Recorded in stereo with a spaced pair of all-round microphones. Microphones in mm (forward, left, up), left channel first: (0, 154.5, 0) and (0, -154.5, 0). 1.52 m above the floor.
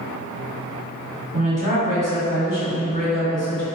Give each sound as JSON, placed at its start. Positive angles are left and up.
{"t": 1.3, "sound": "a woman speaking", "side_deg": 75, "distance_m": 1.8}